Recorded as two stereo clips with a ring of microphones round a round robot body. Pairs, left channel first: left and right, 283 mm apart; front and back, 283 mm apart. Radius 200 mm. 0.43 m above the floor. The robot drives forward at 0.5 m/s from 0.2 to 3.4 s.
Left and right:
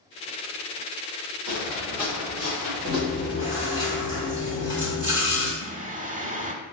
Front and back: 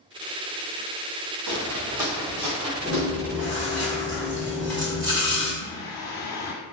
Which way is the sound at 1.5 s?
175° left.